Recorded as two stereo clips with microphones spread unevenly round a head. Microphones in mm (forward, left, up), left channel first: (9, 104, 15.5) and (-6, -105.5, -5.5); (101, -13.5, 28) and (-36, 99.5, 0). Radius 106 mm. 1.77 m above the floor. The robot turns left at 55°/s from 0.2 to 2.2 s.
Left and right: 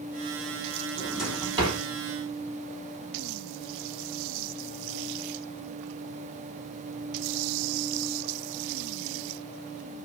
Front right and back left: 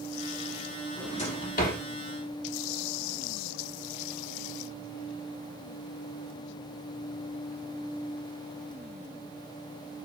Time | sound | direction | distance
1.0 | a drawer | 10° left | 2 m